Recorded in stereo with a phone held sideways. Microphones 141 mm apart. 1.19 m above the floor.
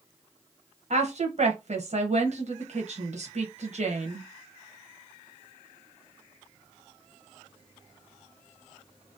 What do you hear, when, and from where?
0.9 s a woman speaking: 55° right (ahead or behind), 1.0 m